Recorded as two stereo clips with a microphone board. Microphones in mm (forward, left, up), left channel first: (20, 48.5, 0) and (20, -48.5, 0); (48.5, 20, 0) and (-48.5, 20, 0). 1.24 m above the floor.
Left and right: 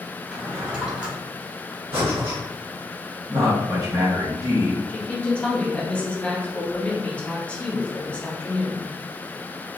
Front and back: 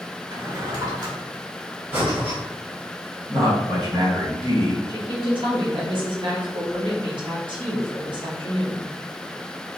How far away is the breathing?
About 1.7 m.